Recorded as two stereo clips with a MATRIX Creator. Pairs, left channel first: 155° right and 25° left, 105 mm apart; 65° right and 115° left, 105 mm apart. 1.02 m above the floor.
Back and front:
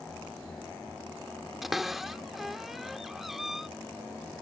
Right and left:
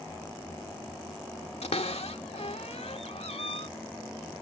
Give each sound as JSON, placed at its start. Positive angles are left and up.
{"t": 1.6, "sound": "a cupboard door", "azimuth_deg": -65}